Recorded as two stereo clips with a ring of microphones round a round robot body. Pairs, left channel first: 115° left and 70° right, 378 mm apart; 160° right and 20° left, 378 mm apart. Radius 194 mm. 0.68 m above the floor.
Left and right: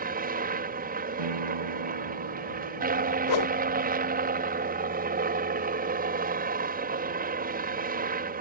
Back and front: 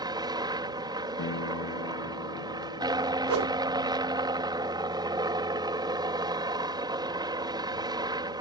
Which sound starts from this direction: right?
A piano, at 1.2 s.